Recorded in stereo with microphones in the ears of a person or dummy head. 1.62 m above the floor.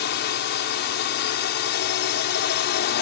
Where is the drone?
55° left (ahead or behind).